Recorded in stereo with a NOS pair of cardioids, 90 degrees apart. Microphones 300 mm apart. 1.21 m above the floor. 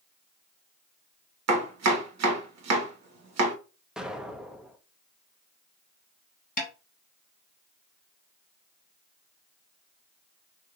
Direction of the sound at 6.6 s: 30° left.